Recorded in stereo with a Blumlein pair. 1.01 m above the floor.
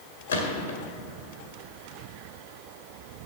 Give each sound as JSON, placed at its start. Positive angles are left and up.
{"t": 0.3, "sound": "a gunshot", "azimuth_deg": 65, "distance_m": 1.8}